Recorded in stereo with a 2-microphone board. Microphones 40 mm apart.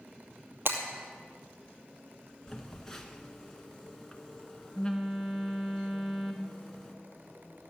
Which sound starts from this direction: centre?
A phone buzzing, at 2.5 s.